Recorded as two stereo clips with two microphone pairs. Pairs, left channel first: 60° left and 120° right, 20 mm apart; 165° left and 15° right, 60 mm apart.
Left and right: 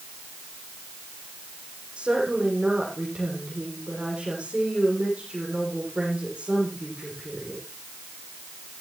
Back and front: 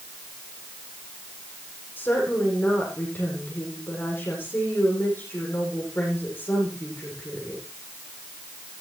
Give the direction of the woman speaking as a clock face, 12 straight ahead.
5 o'clock.